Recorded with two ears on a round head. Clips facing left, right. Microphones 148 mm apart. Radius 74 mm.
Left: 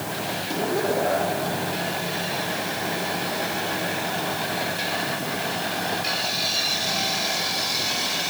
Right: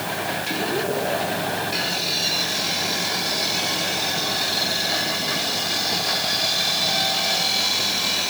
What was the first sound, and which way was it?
Only background noise.